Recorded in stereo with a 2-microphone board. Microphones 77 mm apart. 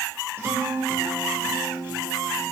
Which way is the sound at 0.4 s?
30° right (ahead or behind).